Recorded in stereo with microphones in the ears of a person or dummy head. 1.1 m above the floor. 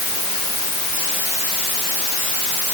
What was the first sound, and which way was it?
Only background noise.